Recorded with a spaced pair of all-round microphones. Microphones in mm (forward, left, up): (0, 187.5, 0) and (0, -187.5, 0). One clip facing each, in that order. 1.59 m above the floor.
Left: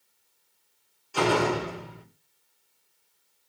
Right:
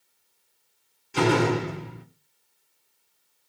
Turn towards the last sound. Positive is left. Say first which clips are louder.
# right 3 dB
turn(degrees=-30)  # may be behind; listen again after turning